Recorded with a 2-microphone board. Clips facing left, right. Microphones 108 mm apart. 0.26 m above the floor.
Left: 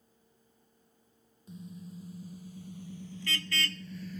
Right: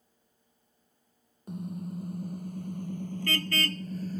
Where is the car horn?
60° right (ahead or behind); by 4.2 s 40° right (ahead or behind).